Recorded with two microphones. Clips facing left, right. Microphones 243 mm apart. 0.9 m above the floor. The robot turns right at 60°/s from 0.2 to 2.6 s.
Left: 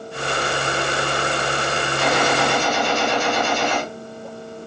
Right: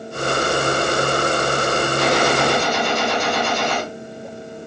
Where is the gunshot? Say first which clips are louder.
Right 1 dB; 125° right, 1.8 m; by 3.8 s 85° right, 1.8 m.